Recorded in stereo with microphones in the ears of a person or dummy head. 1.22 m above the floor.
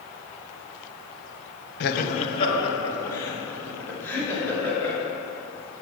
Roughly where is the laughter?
Left.